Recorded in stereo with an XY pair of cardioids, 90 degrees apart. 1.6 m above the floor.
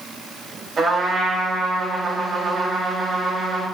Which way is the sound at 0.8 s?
45° right.